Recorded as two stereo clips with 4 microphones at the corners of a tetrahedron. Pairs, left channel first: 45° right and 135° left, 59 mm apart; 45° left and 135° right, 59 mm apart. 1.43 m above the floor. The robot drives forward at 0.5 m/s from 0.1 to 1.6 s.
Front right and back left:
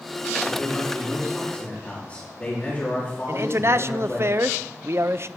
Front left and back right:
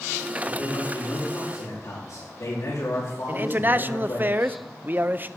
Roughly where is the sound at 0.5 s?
Ahead.